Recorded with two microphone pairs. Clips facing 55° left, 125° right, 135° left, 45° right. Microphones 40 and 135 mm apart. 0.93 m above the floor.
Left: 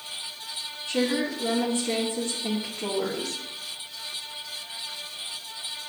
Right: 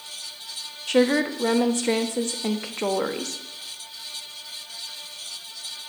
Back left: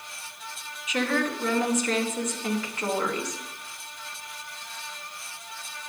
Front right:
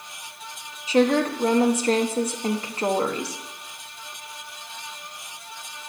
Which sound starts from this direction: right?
A woman speaking, at 0.9 s.